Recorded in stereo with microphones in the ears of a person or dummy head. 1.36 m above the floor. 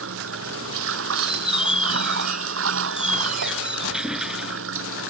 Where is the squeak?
Centre (ahead or behind).